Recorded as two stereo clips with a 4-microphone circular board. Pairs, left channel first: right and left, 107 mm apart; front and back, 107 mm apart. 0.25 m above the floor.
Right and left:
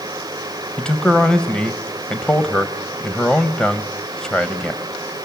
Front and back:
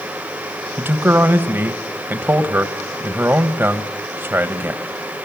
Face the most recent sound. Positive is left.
turn(degrees=-155)